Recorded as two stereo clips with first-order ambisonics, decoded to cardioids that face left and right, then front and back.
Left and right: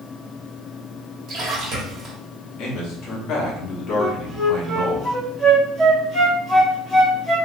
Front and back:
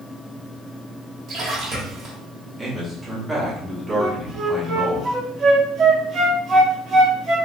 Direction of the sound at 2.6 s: 100° left.